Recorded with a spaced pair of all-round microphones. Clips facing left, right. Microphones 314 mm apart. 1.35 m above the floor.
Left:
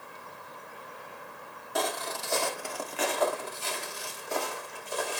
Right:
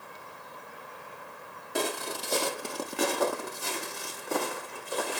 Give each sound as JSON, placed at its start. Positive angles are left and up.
{"t": 1.8, "sound": "footsteps", "side_deg": -35, "distance_m": 2.0}